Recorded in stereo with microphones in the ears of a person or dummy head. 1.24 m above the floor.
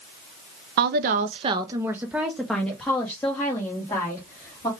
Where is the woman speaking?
50° right (ahead or behind), 0.6 m; by 4.7 s 15° left (ahead or behind), 2.0 m.